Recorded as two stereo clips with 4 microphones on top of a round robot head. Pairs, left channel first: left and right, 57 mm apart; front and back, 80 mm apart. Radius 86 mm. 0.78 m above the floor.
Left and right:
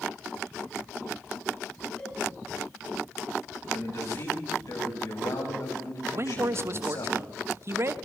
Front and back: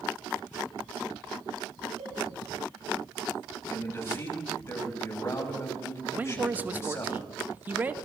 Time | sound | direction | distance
2.0 | a cowbell | 165° left | 9 m
3.7 | a man speaking | 60° left | 6.5 m
6.1 | a man speaking | 120° right | 1.1 m